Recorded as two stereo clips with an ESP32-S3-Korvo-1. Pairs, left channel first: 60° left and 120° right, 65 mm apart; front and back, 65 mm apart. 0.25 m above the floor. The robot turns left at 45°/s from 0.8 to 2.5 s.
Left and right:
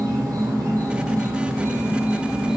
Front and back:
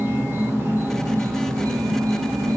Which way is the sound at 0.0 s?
125° right.